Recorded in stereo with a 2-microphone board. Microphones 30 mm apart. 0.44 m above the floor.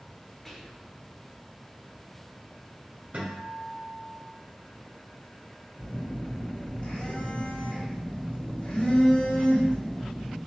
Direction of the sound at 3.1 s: 60° right (ahead or behind).